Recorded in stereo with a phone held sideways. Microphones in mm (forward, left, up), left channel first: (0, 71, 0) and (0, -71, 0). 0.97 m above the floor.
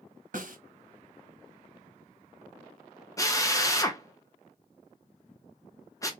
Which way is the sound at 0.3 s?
60° right (ahead or behind).